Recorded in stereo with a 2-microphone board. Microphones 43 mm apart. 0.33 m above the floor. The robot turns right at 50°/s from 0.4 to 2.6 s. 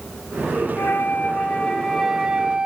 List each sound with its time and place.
0.8 s a flute: 115° left, 0.5 m; by 2.7 s 150° right, 0.5 m